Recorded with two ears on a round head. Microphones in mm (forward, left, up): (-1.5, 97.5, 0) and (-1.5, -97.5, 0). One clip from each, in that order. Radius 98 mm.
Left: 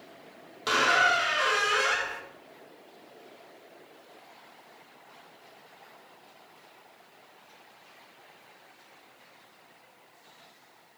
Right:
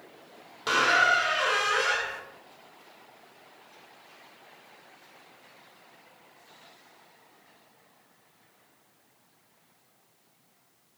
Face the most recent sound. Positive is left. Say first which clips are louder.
# right 1 dB
turn(degrees=10)  # may be behind; listen again after turning